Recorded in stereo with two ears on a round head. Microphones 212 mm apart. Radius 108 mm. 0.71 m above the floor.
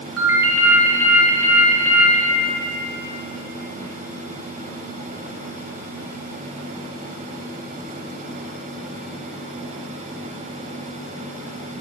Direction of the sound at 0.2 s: 10° right (ahead or behind).